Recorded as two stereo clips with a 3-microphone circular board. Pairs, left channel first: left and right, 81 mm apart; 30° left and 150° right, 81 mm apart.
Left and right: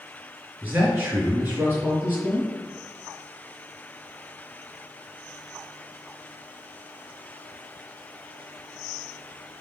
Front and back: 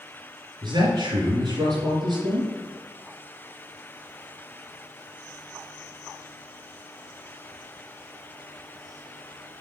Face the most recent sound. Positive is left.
turn(degrees=-155)